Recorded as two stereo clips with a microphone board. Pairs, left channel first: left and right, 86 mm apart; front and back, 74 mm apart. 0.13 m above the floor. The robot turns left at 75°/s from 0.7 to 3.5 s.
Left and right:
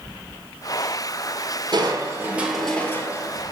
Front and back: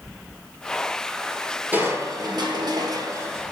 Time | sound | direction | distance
1.7 | crushing | 115° right | 1.6 m